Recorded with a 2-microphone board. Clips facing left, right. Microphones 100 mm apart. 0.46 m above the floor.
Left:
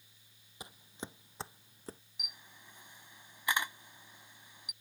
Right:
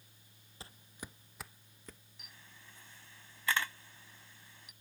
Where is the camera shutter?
20° left (ahead or behind).